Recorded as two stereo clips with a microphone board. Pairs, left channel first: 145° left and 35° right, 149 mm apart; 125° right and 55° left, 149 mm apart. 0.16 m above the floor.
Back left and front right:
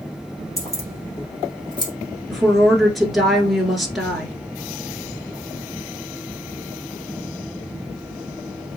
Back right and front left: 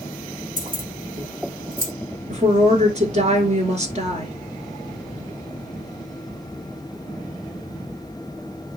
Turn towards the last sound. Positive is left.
turn(degrees=55)